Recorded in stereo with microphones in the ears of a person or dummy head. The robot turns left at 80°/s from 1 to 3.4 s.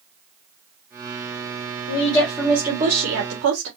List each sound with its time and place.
1.9 s a woman speaking: 45° left, 1.2 m; by 3.7 s 75° right, 1.2 m